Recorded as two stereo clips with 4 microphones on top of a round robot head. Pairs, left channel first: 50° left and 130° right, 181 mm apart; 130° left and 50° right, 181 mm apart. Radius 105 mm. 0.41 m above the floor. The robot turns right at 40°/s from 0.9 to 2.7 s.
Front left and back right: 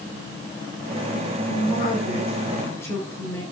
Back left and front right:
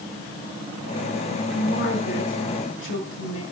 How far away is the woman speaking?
About 6.5 m.